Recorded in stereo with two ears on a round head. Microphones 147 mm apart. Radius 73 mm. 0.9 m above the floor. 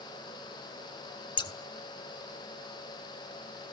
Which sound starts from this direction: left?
Scissors, at 1.4 s.